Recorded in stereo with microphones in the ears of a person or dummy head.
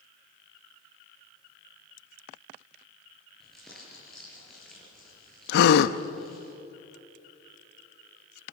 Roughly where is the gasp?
Left.